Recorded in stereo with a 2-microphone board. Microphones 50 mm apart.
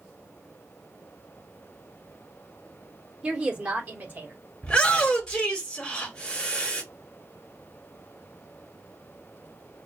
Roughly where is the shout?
Centre.